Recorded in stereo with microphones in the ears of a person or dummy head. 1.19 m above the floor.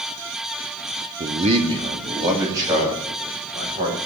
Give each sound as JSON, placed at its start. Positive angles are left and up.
{"t": 1.2, "sound": "a man speaking", "side_deg": -35, "distance_m": 0.6}